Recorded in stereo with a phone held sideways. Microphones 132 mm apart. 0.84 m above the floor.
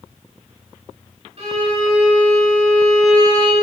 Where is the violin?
50° right (ahead or behind), 1.3 m.